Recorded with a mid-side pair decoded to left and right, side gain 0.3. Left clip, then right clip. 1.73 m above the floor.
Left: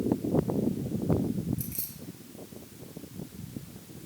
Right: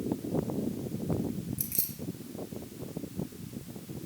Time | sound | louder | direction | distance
1.6 | keys jangling | right 2 dB | 65° right | 1.9 m